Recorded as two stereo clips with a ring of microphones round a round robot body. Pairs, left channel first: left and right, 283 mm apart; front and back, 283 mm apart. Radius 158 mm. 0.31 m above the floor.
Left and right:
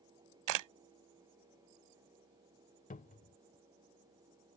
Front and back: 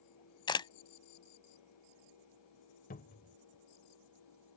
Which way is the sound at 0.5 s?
75° right.